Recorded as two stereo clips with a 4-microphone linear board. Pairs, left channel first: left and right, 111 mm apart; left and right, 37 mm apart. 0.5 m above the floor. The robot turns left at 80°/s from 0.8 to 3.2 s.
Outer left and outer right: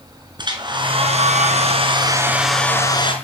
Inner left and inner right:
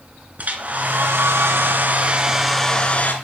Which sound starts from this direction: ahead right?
A hair dryer, at 0.4 s.